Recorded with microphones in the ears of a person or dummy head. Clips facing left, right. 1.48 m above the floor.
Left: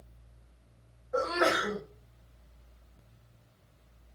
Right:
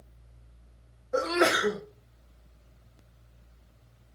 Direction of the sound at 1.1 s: 35° right (ahead or behind).